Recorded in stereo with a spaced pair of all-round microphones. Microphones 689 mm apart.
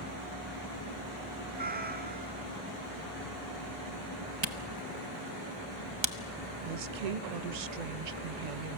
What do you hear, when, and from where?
1.6 s a cat meowing: 15° right (ahead or behind), 1.4 m
4.4 s a camera shutter: 40° right (ahead or behind), 1.2 m
6.6 s a woman speaking: 70° right (ahead or behind), 0.7 m